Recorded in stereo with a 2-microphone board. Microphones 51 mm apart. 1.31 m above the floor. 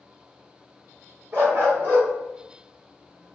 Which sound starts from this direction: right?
A dog barking, at 1.3 s.